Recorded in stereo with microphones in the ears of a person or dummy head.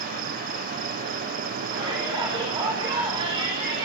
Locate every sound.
0.0 s an insect: 50° right (ahead or behind), 1.6 m
1.7 s a shout: 20° right (ahead or behind), 7 m